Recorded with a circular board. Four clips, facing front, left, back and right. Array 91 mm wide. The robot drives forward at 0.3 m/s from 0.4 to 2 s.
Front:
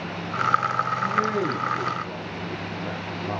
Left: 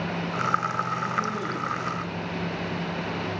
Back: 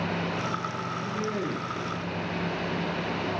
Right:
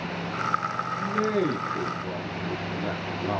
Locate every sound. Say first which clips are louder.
1.0 s a man speaking: right 3 dB, front 5 dB; 80° right, 6 m; by 3.4 s 85° right, 6 m